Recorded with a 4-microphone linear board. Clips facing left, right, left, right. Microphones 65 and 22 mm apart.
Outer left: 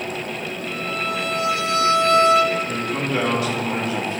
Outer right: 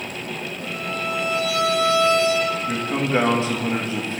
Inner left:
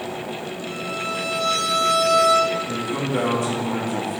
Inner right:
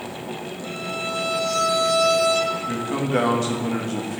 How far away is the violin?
About 1.5 m.